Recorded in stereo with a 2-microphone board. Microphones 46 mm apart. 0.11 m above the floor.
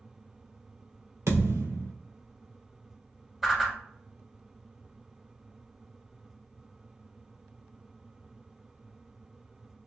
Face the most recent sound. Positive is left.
turn(degrees=-10)  # may be behind; listen again after turning